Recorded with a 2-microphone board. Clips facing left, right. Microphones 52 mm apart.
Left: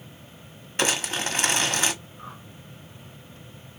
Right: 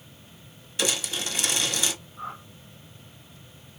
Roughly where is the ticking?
No ticking in this recording.